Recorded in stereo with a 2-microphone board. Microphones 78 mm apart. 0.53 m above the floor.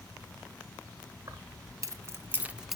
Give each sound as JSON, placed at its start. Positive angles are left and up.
{"t": 1.3, "sound": "keys jangling", "side_deg": -50, "distance_m": 1.3}